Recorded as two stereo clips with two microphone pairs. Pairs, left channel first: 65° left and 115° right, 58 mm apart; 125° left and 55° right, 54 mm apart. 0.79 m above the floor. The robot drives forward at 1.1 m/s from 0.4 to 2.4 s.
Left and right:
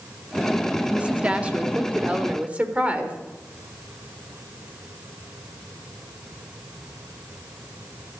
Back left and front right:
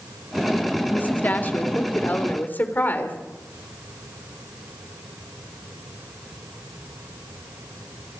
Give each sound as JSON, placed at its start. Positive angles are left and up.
{"t": 0.9, "sound": "a woman speaking", "azimuth_deg": 180, "distance_m": 1.8}